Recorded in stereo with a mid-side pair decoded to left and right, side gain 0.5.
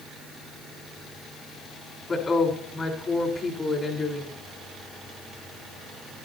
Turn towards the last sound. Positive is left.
turn(degrees=35)